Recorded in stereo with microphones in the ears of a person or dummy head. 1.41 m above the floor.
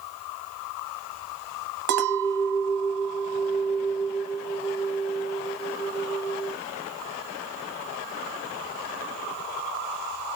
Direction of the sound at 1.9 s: 65° right (ahead or behind).